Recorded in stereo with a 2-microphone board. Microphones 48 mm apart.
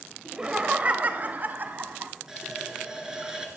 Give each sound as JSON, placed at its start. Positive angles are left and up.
{"t": 0.2, "sound": "laughter", "side_deg": -15, "distance_m": 0.9}
{"t": 2.3, "sound": "a running tap", "side_deg": -15, "distance_m": 2.5}